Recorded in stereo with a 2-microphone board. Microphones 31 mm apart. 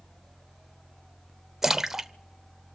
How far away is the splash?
About 0.5 m.